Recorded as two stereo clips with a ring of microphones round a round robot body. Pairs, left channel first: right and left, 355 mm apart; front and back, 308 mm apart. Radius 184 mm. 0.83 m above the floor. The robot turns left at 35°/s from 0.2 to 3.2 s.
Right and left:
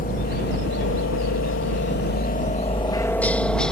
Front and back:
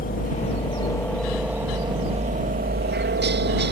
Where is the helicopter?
40° right; by 3.7 s 175° right.